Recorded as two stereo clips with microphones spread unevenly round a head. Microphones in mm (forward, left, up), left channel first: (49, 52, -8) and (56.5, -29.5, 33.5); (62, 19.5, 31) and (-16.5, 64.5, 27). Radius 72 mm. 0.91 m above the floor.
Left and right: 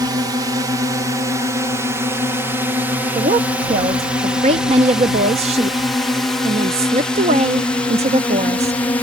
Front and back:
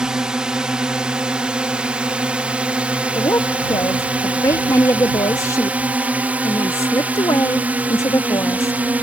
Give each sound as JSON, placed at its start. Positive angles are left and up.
{"t": 0.0, "sound": "a drone", "azimuth_deg": -140}
{"t": 3.1, "sound": "a woman speaking", "azimuth_deg": -90}